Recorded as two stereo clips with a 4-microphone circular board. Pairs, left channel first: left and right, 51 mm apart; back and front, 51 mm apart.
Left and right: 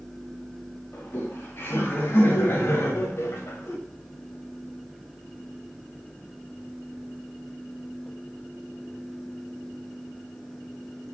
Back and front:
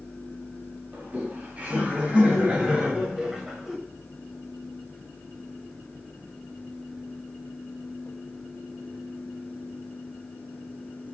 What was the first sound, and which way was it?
Laughter, 55° left.